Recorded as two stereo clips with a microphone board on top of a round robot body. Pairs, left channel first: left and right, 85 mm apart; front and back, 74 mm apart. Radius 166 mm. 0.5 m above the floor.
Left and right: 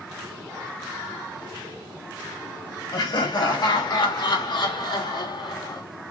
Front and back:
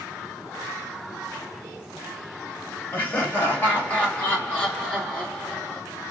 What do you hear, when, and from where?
2.9 s laughter: 65° left, 4 m; by 5.8 s 80° left, 2.5 m